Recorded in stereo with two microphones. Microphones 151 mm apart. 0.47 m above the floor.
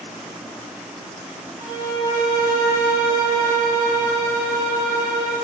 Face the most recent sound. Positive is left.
turn(degrees=-35)  # may be behind; listen again after turning